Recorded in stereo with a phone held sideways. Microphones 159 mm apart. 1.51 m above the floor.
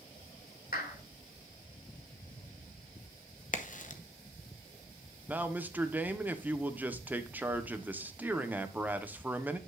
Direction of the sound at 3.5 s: 55° left (ahead or behind).